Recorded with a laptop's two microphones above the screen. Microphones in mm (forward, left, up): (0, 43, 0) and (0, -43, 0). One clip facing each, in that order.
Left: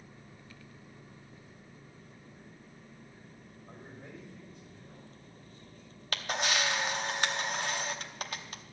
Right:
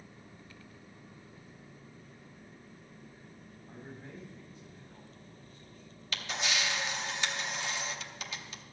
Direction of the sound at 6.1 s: 50° left (ahead or behind).